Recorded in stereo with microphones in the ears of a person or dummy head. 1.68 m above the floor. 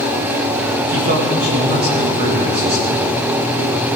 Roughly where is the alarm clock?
I don't hear an alarm clock.